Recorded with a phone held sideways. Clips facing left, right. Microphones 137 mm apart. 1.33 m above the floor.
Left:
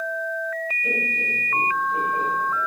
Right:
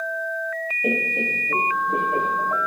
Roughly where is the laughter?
Right.